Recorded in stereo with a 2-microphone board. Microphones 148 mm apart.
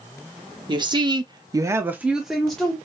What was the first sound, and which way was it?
A woman speaking, 30° right (ahead or behind).